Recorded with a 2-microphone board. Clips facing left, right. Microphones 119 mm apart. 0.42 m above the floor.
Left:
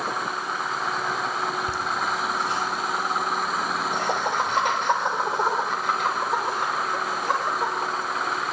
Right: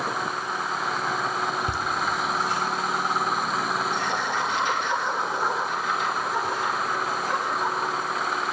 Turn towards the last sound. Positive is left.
turn(degrees=75)  # may be behind; listen again after turning